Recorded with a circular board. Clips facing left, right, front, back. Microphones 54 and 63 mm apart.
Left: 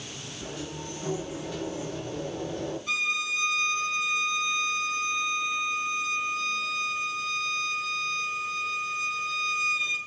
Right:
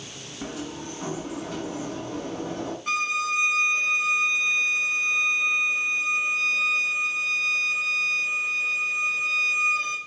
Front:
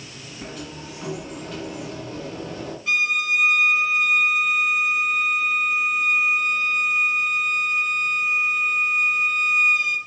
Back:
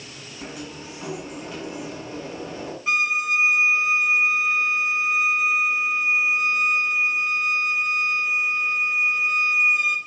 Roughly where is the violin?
Right.